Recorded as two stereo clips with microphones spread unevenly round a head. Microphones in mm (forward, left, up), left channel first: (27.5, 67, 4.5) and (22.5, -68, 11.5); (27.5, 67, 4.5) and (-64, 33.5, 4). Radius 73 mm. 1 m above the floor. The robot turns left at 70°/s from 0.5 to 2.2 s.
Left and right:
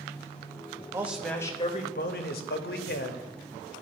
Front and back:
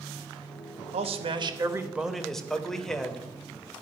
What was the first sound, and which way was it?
A man speaking, 165° right.